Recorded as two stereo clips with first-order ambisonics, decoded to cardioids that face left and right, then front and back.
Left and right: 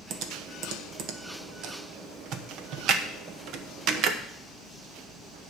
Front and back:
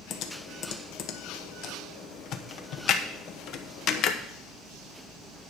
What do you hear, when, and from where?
0.1 s typing on a keyboard: 45° right, 1.0 m